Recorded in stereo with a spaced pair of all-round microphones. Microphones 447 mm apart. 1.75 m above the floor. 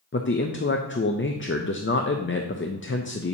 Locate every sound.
0.1 s a man speaking: 30° left (ahead or behind), 0.5 m